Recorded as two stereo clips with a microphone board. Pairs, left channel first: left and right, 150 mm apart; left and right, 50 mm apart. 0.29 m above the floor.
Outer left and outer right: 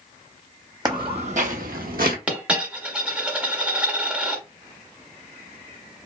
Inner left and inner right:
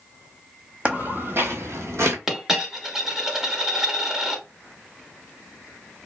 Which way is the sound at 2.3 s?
10° right (ahead or behind).